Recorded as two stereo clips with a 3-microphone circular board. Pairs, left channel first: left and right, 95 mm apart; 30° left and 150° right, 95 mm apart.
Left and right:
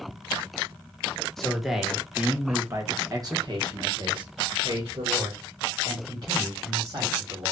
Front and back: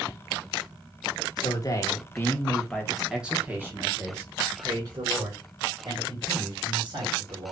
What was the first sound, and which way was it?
A man speaking, 5° left.